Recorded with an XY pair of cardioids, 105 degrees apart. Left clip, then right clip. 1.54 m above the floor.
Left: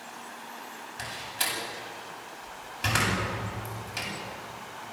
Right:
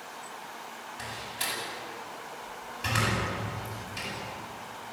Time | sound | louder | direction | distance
1.0 | a door slam | left 3 dB | 55° left | 9 m